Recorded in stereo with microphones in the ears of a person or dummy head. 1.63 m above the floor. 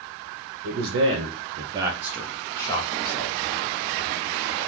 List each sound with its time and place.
0.6 s a man speaking: 60° right (ahead or behind), 0.8 m; by 3.4 s 35° left (ahead or behind), 0.9 m